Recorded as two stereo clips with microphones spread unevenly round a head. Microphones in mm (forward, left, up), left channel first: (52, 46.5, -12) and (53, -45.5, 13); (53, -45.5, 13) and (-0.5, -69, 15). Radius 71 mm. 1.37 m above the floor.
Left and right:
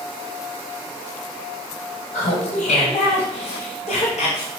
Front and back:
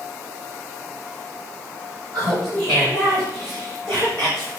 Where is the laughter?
120° left, 5.5 m; by 4.5 s 105° left, 6 m.